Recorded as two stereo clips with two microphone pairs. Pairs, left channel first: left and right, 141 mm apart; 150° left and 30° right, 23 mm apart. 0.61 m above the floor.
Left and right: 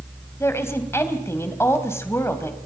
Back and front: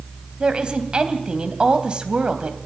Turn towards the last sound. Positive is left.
turn(degrees=20)